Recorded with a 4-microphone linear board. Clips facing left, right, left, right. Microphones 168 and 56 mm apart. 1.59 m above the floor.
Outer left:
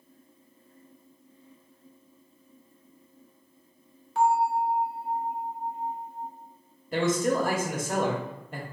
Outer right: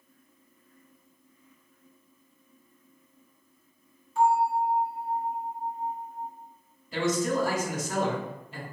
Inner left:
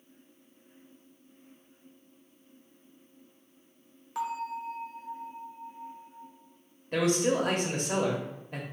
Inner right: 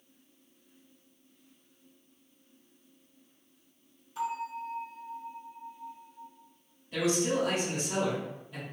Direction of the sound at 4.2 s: 70° left (ahead or behind).